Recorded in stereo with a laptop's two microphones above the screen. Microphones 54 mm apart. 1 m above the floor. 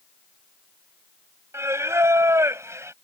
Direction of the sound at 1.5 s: 55° right (ahead or behind).